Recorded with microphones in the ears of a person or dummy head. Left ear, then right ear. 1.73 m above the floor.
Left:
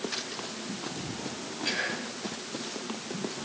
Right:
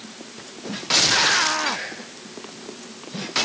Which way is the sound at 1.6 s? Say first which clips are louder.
Right 3 dB; 10° right (ahead or behind).